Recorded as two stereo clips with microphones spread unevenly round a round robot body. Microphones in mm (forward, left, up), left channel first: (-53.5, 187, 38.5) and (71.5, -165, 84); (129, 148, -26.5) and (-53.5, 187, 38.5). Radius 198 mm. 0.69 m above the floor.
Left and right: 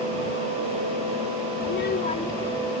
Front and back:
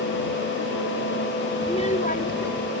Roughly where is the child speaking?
Ahead left.